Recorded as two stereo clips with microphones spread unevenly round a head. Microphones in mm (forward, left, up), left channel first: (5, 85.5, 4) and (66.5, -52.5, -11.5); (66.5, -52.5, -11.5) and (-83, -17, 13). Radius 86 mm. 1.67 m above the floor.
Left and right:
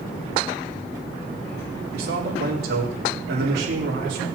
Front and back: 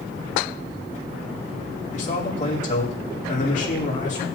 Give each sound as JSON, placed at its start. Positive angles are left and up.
{"t": 1.9, "sound": "a man speaking", "azimuth_deg": -55, "distance_m": 4.0}